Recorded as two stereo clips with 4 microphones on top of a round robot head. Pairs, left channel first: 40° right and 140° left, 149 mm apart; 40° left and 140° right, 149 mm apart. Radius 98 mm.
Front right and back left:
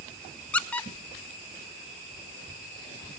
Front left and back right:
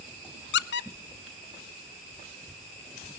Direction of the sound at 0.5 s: 45° left.